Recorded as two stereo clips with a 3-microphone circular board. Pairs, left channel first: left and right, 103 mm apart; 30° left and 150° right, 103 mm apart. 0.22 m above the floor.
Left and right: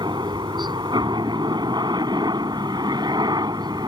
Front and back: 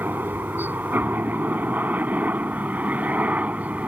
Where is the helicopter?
85° right; by 3.9 s 80° right.